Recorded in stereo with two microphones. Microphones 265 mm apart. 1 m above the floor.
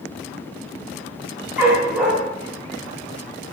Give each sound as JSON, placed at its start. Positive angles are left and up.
{"t": 1.6, "sound": "a dog barking", "side_deg": -5, "distance_m": 3.5}